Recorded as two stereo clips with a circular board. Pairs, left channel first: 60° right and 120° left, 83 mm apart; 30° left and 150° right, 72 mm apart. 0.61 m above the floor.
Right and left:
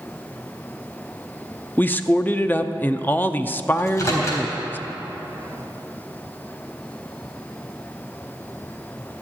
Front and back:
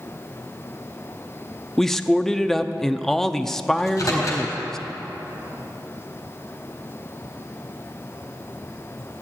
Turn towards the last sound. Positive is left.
turn(degrees=-10)